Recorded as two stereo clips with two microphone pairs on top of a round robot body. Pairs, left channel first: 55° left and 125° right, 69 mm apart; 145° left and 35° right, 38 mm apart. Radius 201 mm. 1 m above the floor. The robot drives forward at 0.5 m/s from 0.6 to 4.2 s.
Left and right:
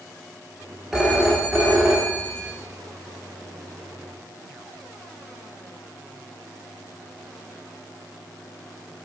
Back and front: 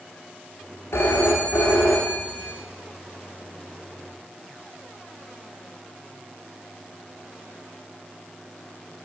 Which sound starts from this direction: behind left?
A phone ringing, at 0.9 s.